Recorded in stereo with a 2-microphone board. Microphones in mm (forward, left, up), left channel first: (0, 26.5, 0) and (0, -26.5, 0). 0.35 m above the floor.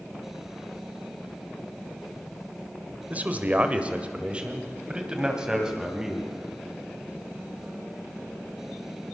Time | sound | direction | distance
3.1 | a man speaking | 30° right (ahead or behind) | 1.6 m